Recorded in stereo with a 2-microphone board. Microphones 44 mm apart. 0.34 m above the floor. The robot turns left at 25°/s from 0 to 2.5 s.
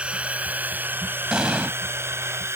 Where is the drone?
25° right (ahead or behind); by 2.6 s 75° right (ahead or behind).